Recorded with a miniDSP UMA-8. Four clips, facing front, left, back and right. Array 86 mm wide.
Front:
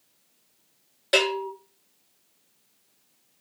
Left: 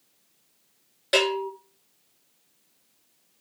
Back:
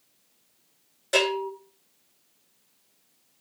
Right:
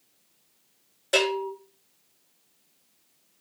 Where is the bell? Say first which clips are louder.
Left 1 dB, front 1 dB; 50° left, 1.3 m.